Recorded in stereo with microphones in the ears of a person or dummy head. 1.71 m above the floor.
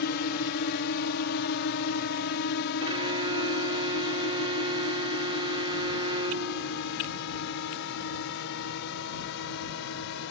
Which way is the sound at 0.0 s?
50° left (ahead or behind).